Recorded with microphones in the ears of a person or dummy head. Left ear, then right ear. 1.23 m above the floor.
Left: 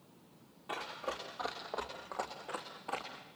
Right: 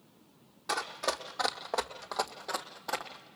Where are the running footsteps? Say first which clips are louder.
Right 7 dB; 55° right (ahead or behind), 2.0 m; by 3.3 s 30° right (ahead or behind), 2 m.